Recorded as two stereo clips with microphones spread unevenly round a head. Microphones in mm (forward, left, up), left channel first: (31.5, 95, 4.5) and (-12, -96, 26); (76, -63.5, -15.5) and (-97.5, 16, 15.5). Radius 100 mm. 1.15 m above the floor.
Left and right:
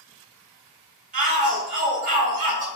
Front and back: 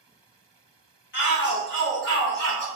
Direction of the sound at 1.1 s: 50° right.